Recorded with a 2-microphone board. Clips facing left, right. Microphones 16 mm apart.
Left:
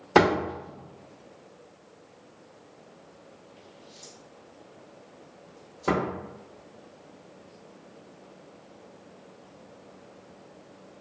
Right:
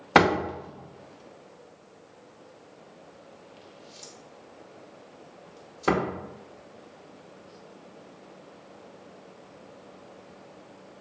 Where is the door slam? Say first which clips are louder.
Even; 25° right (ahead or behind), 0.6 m.